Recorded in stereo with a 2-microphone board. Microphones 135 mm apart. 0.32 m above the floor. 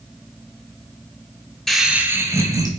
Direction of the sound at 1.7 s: Centre (ahead or behind).